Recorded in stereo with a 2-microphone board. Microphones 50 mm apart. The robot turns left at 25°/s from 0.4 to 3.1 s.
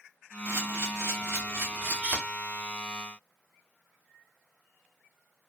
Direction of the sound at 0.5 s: 70° right (ahead or behind).